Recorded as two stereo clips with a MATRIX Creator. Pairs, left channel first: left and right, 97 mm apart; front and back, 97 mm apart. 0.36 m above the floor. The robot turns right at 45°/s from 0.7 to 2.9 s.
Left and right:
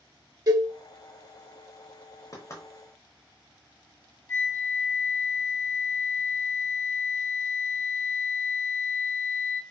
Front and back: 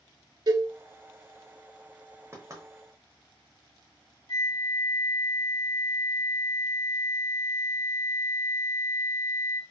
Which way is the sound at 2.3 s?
130° left.